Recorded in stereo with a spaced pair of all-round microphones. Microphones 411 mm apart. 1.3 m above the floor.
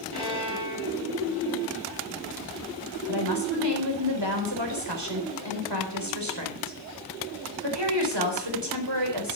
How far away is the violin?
About 7 m.